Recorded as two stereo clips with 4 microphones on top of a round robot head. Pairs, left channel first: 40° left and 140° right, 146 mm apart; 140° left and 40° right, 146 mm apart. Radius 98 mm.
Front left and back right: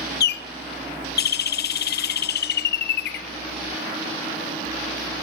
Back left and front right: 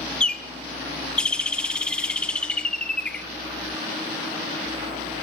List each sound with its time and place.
0.2 s a bird: 55° left, 0.9 m